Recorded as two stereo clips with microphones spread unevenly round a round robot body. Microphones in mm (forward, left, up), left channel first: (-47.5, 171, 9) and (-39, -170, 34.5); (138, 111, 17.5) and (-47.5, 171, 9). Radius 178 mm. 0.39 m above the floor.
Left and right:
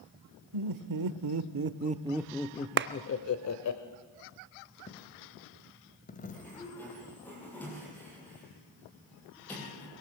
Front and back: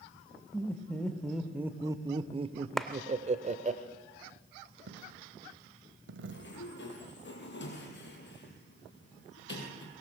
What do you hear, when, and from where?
0.5 s laughter: 100° right, 1.5 m; by 3.8 s 115° left, 1.5 m
2.8 s a clap: 110° right, 0.6 m
4.9 s a dropped coin: 155° left, 1.1 m
6.3 s a sliding door: 5° left, 4 m